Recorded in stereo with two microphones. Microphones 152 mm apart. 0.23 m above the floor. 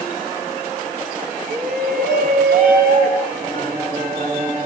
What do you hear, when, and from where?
1.5 s a shout: 65° right (ahead or behind), 5.5 m; by 3.2 s 75° right (ahead or behind), 5.5 m
3.3 s singing: 70° right (ahead or behind), 2.5 m